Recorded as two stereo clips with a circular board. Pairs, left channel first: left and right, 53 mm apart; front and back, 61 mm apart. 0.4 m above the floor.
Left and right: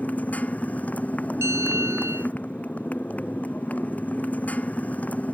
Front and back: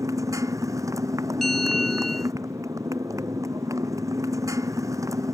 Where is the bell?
85° right.